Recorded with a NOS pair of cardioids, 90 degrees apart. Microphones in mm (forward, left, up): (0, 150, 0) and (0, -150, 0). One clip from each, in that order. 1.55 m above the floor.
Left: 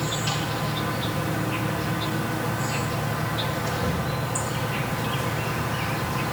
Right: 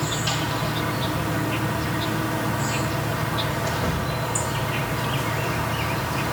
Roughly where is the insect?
Ahead right.